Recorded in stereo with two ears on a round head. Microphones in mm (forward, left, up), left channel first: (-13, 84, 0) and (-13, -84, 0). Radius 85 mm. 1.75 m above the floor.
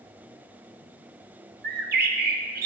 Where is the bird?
55° right (ahead or behind), 1.2 m.